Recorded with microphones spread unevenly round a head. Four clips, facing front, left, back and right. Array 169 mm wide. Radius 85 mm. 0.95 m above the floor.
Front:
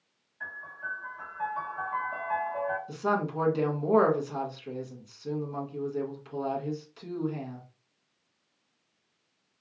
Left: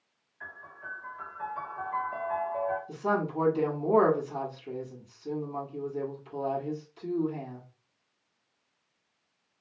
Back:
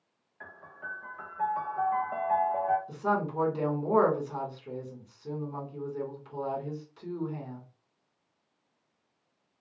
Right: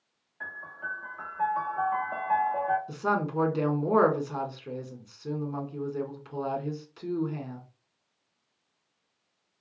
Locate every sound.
0.4 s a piano: 120° right, 1.0 m
2.9 s a woman speaking: 65° right, 1.3 m